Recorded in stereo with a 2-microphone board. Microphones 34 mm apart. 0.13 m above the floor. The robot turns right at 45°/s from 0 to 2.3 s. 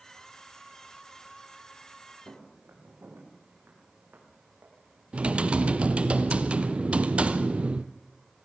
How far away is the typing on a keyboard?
About 1.0 m.